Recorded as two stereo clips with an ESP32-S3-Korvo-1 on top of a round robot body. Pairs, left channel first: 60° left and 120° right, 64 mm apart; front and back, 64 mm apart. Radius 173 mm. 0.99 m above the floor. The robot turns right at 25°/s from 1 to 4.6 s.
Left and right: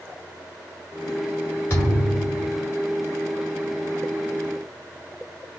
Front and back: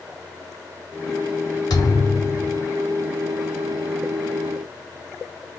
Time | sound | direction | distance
1.7 | a thud | straight ahead | 1.2 m